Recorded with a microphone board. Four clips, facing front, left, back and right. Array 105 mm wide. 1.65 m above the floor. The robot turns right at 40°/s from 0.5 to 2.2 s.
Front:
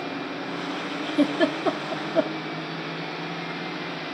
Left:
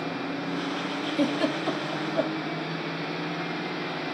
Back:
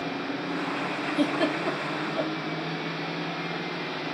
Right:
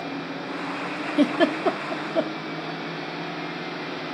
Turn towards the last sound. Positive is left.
turn(degrees=-40)